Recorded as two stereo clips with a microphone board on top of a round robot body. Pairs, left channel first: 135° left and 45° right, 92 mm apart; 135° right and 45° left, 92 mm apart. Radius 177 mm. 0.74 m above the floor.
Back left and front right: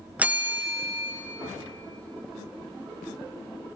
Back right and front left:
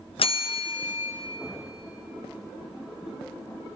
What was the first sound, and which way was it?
A bell, 120° right.